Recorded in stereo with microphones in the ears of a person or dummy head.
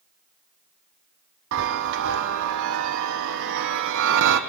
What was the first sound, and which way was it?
A chime, 70° right (ahead or behind).